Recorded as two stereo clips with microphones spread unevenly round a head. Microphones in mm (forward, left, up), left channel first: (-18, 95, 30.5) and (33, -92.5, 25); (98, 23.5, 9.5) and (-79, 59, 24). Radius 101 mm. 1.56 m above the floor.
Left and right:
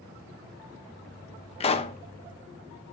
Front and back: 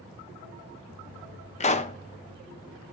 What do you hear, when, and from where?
1.6 s a pop: 45° left, 1.0 m